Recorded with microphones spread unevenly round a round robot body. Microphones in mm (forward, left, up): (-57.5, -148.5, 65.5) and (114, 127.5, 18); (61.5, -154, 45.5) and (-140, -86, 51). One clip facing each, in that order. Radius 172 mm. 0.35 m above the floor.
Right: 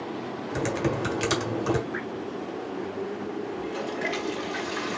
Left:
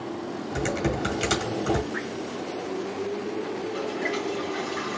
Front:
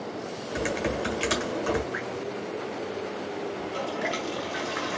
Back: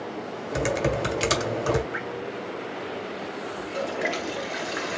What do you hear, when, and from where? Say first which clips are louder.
0.5 s typing on a keyboard: right 1 dB, back 4 dB; 160° left, 1.5 m
1.9 s dripping: left 1 dB, even; 160° right, 3.5 m
3.6 s a toilet flushing: left 2 dB, back 2 dB; 135° right, 1.7 m